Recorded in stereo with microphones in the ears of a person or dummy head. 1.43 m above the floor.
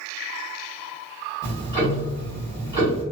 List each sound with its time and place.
1.4 s ticking: 25° right (ahead or behind), 1.1 m